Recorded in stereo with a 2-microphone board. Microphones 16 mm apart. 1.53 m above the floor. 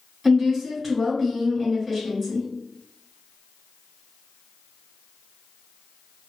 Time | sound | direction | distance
0.2 | a woman speaking | 25° right (ahead or behind) | 1.9 m